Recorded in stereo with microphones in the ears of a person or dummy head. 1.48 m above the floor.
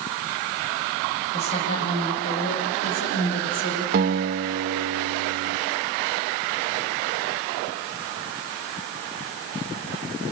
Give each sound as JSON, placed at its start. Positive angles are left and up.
{"t": 1.3, "sound": "a woman speaking", "side_deg": 25, "distance_m": 7.5}
{"t": 3.9, "sound": "a guitar", "side_deg": -50, "distance_m": 1.7}